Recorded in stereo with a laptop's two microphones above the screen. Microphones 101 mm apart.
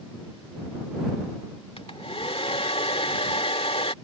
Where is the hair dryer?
65° left (ahead or behind).